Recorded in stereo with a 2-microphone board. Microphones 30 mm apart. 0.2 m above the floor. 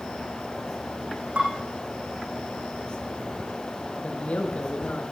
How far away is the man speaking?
About 2.5 m.